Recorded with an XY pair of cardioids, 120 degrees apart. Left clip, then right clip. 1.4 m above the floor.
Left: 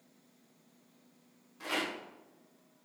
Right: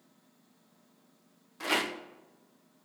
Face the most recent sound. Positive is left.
turn(degrees=-45)